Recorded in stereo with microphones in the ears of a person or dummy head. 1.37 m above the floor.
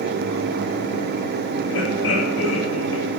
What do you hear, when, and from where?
1.7 s laughter: 90° left, 7.5 m